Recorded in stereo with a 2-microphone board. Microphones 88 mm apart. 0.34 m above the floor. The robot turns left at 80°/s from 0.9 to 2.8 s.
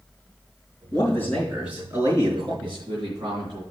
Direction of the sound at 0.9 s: 50° left.